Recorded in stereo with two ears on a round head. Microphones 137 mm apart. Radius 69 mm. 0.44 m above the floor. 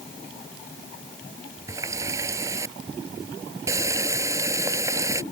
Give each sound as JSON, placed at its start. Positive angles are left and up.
{"t": 1.7, "sound": "a running tap", "side_deg": -20}